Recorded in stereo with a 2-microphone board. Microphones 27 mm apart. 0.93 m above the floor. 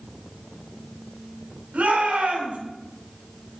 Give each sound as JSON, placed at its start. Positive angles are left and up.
{"t": 1.7, "sound": "a shout", "side_deg": -75, "distance_m": 7.0}